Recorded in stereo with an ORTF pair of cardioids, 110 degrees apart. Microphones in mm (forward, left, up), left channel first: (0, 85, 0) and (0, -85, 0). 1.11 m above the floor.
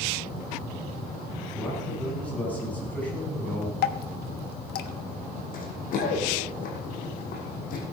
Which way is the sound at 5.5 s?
60° left.